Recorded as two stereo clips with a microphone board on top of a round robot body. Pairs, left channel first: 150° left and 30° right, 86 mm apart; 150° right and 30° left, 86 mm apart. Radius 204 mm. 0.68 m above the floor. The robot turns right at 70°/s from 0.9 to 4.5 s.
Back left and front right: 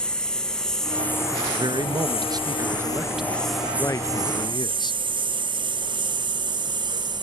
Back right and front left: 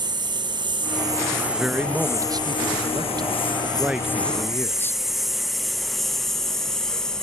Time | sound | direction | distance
0.0 | a lawn mower | 70° left | ?
1.5 | a man speaking | 65° right | ?